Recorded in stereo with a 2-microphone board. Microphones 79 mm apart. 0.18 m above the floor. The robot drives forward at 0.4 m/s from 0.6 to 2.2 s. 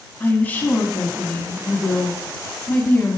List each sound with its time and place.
0.2 s a woman speaking: 20° left (ahead or behind), 1.3 m